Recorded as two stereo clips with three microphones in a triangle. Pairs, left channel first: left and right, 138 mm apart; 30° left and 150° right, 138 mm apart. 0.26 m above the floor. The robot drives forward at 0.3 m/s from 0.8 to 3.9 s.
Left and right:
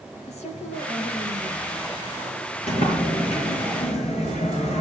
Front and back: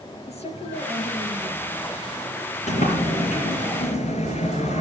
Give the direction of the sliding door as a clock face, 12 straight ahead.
10 o'clock.